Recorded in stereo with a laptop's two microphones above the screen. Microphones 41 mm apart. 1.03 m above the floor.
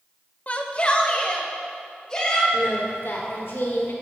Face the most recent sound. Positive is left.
turn(degrees=65)  # may be behind; listen again after turning